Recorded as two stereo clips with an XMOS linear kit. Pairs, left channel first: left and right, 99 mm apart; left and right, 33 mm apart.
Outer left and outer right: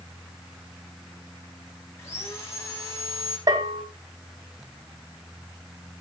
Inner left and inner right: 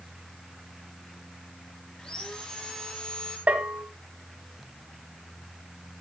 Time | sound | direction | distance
2.0 | sawing | 30° left (ahead or behind) | 5.5 m
3.5 | a bell | 45° right (ahead or behind) | 2.5 m